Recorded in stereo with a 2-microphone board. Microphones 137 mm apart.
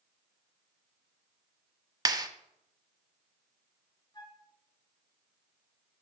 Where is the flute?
35° left (ahead or behind), 1.5 m.